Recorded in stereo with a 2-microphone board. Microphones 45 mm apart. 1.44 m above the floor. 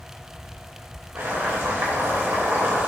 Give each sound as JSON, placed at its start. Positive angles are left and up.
{"t": 1.1, "sound": "boiling", "side_deg": -65, "distance_m": 3.0}